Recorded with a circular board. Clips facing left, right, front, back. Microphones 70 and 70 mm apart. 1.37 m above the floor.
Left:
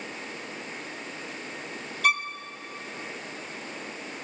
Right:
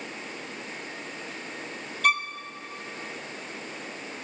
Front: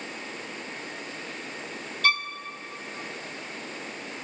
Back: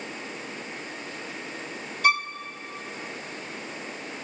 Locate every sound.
2.0 s a violin: 175° left, 0.6 m